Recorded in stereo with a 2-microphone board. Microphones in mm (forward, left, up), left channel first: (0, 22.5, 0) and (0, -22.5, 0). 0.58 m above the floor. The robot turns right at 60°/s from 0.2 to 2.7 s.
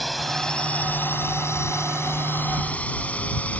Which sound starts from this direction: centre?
A drone, at 0.0 s.